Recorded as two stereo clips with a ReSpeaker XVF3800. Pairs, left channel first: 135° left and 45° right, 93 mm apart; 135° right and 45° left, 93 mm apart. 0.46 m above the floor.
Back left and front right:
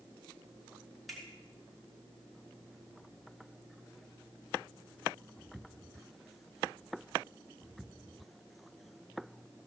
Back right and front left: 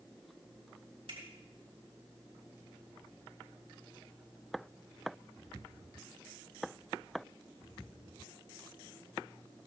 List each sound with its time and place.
1.1 s a finger snap: 45° left, 5.5 m